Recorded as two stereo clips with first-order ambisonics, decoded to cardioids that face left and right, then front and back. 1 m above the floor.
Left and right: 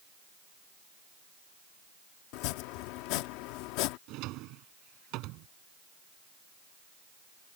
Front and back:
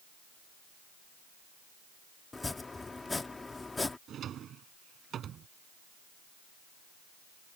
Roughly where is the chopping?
Left.